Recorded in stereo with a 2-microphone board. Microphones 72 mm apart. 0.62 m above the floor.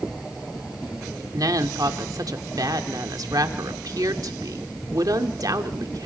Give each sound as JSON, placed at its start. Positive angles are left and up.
{"t": 1.3, "sound": "a woman speaking", "side_deg": -60, "distance_m": 1.6}